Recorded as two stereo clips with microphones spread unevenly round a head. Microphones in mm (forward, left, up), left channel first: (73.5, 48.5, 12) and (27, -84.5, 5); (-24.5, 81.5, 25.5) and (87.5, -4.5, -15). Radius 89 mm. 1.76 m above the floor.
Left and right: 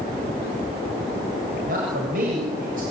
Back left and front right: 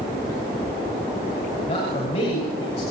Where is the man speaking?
160° right, 7.5 m.